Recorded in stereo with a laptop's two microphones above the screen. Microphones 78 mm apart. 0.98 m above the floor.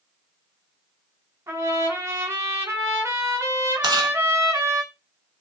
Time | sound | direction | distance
1.5 | a trumpet | 45° right (ahead or behind) | 2.5 m
3.8 | chewing | 65° right (ahead or behind) | 1.3 m